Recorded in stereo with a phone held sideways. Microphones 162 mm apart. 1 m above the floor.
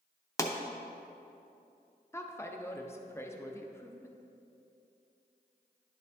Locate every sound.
0.4 s a pop: 20° left (ahead or behind), 0.6 m
2.1 s a woman speaking: 15° left (ahead or behind), 0.6 m